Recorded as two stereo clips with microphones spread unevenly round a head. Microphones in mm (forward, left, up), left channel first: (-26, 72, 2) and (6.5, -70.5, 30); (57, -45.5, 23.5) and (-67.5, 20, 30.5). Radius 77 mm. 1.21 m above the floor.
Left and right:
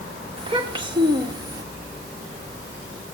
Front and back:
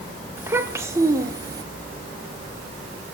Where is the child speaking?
135° right, 3 m; by 1.6 s 145° right, 3 m.